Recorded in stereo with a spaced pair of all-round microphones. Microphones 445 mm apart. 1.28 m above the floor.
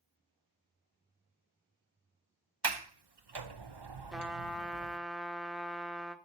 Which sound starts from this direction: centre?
A trumpet, at 4.1 s.